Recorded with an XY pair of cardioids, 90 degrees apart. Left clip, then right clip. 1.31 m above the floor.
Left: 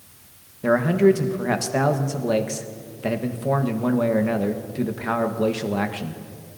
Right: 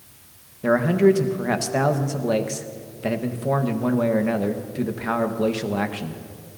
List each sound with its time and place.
0.6 s a man speaking: straight ahead, 1.3 m